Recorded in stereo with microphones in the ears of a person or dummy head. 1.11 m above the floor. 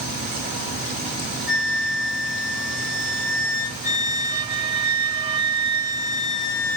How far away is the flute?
About 2 m.